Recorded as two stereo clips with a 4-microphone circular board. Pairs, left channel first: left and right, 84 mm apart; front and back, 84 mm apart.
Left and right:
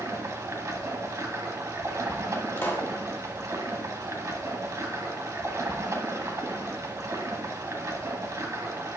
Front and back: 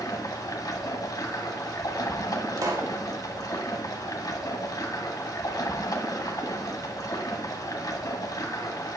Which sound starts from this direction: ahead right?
Running water, at 0.0 s.